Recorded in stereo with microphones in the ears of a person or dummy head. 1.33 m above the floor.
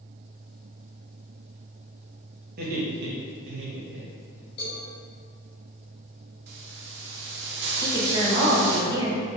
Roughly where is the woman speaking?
Right.